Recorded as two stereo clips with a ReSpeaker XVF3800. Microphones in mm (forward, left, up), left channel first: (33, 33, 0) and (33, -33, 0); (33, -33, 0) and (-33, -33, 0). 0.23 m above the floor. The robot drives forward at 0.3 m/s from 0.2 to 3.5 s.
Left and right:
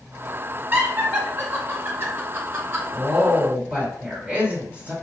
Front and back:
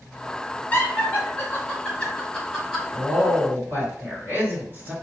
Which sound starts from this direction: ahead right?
Laughter, at 0.7 s.